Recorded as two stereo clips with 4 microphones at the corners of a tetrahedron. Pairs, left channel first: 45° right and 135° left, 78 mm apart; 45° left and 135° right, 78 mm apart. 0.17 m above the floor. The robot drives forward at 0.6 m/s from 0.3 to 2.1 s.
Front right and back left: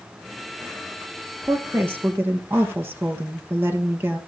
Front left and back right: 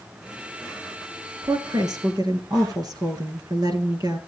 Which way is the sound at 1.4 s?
165° right.